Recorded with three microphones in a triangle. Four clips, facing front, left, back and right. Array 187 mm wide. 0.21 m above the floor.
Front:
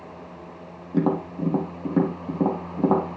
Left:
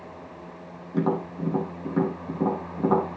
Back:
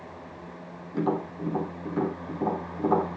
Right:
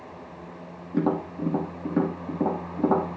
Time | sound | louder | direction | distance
0.9 | tapping | right 1 dB, front 5 dB | 5° right | 6.5 m